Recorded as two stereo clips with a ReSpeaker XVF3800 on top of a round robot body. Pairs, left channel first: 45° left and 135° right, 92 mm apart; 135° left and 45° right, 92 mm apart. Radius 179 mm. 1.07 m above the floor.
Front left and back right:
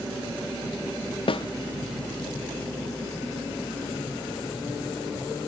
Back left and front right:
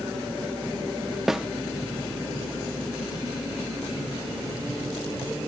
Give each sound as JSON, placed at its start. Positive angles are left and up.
{"t": 1.3, "sound": "a snare drum", "azimuth_deg": 40}